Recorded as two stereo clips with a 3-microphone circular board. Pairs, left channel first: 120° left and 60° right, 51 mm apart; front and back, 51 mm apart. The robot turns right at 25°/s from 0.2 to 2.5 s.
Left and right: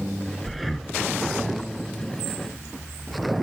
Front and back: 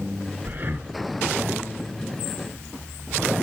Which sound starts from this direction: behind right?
Breathing, at 0.5 s.